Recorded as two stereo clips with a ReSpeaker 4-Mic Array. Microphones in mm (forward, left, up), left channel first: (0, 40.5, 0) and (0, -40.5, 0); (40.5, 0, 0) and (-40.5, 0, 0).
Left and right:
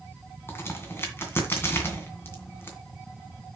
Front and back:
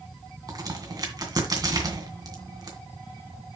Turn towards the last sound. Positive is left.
turn(degrees=150)